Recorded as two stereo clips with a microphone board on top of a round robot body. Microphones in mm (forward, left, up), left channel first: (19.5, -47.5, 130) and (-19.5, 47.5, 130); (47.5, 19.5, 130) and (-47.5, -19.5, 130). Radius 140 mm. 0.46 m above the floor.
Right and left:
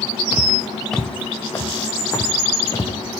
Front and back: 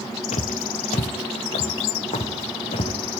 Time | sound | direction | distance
0.3 | footsteps | 40° left | 0.8 m